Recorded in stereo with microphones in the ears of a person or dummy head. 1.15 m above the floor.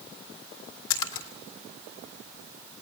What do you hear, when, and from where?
0.9 s a splash: 85° left, 3 m